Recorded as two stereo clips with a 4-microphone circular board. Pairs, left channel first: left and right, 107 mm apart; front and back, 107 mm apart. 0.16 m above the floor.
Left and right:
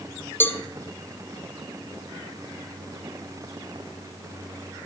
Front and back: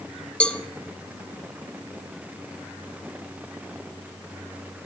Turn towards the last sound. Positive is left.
turn(degrees=65)